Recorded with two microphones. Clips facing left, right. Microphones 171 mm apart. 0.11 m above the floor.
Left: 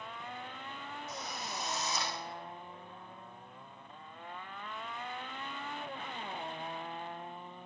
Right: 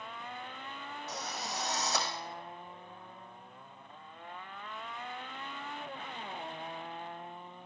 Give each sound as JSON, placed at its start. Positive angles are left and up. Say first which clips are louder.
{"t": 1.1, "sound": "a drill", "louder": "right 4 dB", "side_deg": -75, "distance_m": 6.0}